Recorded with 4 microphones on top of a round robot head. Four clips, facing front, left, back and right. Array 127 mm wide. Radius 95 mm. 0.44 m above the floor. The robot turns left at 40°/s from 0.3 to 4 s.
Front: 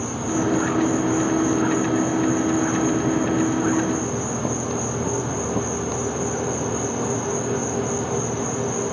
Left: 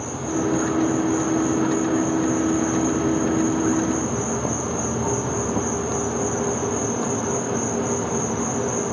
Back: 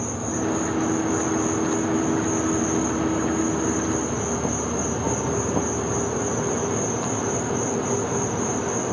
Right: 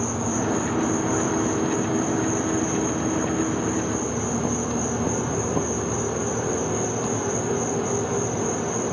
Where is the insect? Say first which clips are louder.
Left 1 dB, front 3 dB; 90° right, 4.5 m; by 8.9 s 125° left, 4.5 m.